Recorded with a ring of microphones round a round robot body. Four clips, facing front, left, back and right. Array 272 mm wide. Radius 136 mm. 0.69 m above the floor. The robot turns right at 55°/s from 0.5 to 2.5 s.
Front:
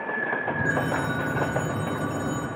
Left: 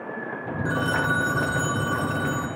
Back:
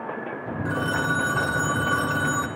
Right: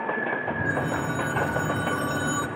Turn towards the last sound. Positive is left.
turn(degrees=-150)